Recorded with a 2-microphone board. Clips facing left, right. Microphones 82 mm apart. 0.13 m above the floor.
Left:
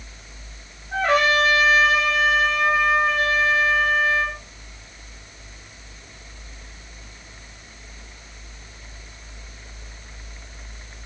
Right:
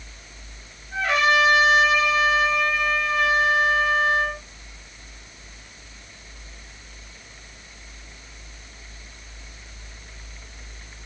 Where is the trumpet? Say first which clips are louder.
Left 1 dB; 40° left (ahead or behind), 9.5 m.